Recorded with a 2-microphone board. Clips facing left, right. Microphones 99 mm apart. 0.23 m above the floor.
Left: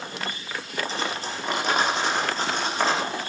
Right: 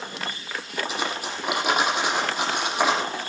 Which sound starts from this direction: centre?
Cutlery clinking, at 0.9 s.